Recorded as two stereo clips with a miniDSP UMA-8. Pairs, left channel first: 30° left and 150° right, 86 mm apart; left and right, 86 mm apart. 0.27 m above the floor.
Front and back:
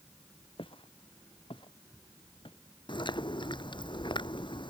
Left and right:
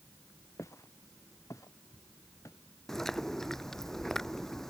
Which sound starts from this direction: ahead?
Chewing, at 2.9 s.